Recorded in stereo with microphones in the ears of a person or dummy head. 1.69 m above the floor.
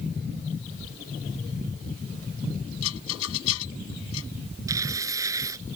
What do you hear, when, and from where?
2.8 s a rattle: 80° left
4.7 s tearing paper: 20° right (ahead or behind)